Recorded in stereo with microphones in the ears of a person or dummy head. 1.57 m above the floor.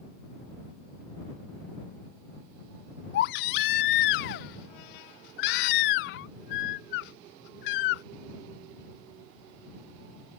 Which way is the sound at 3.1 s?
60° left (ahead or behind).